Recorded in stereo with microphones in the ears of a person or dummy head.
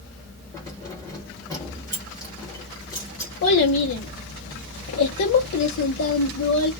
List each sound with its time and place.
0.5 s keys jangling: 20° left (ahead or behind), 1.0 m
3.4 s a child speaking: 80° left, 0.7 m